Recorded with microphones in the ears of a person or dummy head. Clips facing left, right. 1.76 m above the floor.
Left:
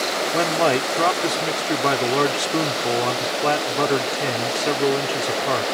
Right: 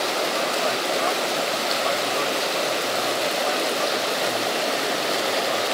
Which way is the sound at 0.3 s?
65° left (ahead or behind).